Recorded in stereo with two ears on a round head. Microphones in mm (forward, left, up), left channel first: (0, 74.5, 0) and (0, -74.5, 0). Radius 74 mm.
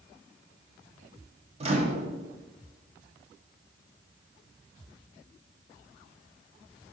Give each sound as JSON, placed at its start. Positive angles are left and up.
{"t": 1.6, "sound": "a microwave", "side_deg": -35, "distance_m": 0.9}